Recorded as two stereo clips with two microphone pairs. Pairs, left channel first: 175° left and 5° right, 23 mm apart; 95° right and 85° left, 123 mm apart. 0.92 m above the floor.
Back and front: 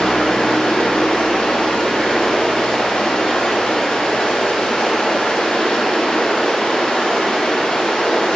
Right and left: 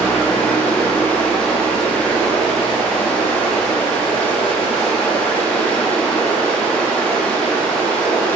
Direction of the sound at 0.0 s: 175° right.